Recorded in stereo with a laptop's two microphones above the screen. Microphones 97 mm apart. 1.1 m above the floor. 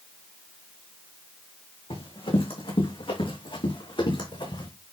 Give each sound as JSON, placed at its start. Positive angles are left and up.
{"t": 1.9, "sound": "running footsteps", "side_deg": 65, "distance_m": 4.0}